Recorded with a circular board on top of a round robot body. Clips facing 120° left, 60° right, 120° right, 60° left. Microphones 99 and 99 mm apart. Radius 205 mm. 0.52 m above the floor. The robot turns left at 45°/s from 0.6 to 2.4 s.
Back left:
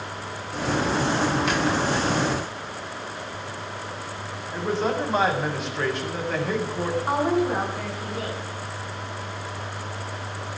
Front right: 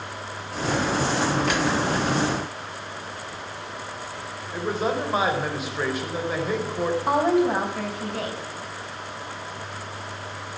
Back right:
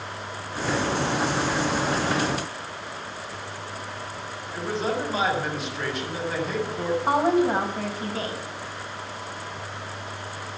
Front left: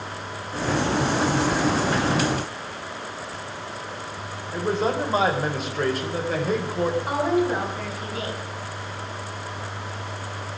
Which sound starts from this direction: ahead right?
A woman speaking, at 7.1 s.